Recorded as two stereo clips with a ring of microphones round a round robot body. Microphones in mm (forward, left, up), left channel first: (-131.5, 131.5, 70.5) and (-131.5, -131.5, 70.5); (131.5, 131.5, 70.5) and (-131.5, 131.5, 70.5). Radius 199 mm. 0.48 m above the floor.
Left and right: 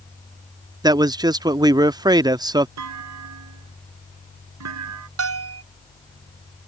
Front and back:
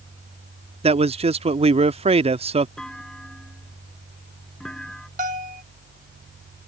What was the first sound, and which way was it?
A man speaking, 150° right.